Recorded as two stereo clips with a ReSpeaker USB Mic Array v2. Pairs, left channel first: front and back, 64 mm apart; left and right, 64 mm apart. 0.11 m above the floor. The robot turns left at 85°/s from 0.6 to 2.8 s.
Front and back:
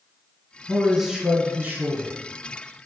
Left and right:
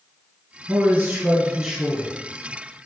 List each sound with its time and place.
0.7 s a man speaking: 90° right, 1.3 m; by 2.1 s 145° left, 1.3 m